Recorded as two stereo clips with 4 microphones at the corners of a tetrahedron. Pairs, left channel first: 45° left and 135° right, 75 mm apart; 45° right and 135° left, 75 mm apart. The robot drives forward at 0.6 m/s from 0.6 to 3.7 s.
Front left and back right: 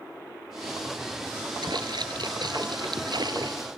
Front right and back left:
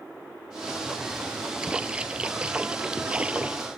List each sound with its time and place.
1.6 s a splash: 150° right